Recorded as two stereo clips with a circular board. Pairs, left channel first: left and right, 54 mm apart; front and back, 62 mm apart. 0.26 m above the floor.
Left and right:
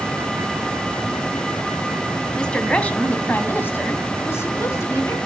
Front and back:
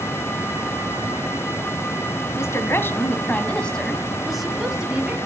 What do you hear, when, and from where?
2.4 s a woman speaking: 20° left, 1.8 m; by 5.2 s 110° left, 2 m